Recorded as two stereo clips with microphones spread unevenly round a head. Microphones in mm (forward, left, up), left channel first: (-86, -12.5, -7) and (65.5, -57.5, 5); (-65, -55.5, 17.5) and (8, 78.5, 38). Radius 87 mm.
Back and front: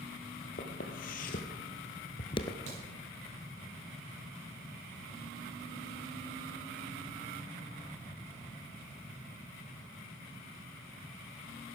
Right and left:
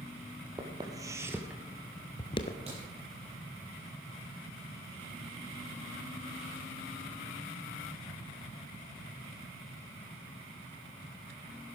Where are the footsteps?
120° left, 2 m; by 2.6 s 140° right, 1.1 m.